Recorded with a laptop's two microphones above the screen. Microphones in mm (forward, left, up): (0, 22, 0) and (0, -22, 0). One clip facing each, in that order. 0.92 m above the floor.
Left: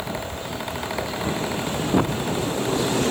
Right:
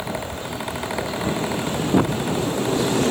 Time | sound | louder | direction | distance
0.0 | a fan | right 1 dB | 5° right (ahead or behind) | ?